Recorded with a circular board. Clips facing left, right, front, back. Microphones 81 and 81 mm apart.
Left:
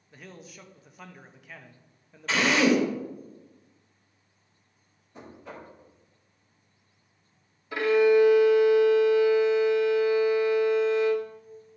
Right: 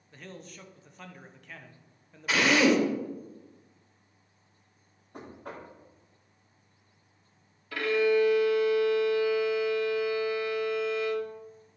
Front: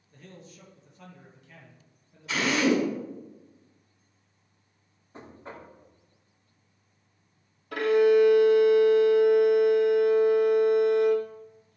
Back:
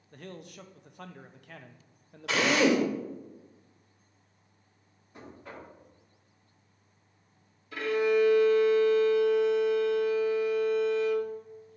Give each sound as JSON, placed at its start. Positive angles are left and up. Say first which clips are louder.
{"t": 0.1, "sound": "a man speaking", "louder": "right 1 dB, back 5 dB", "azimuth_deg": 175, "distance_m": 0.8}
{"t": 2.3, "sound": "a drill", "louder": "left 1 dB, even", "azimuth_deg": -170, "distance_m": 2.5}
{"t": 5.1, "sound": "knocking", "louder": "right 1 dB, front 2 dB", "azimuth_deg": -60, "distance_m": 2.0}
{"t": 7.7, "sound": "a violin", "louder": "left 5 dB, front 6 dB", "azimuth_deg": 20, "distance_m": 1.2}